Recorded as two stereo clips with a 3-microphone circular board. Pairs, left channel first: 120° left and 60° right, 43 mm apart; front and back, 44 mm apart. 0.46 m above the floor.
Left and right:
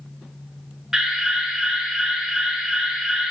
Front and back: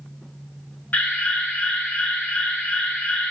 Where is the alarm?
15° left, 0.8 m.